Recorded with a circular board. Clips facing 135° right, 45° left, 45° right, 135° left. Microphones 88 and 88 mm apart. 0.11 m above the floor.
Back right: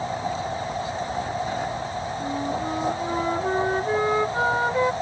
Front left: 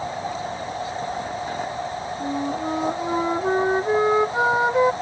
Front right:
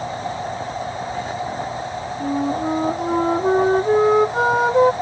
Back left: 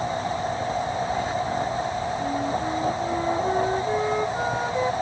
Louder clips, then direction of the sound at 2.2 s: Front left 3 dB, front right 8 dB; 25° right.